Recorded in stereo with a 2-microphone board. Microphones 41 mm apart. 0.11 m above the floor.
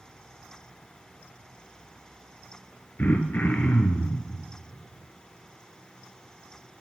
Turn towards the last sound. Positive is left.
turn(degrees=45)  # may be behind; listen again after turning